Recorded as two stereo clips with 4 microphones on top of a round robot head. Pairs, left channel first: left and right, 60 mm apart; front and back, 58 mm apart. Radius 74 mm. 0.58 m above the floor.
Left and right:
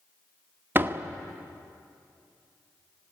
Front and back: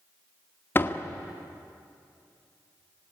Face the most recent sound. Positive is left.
turn(degrees=-45)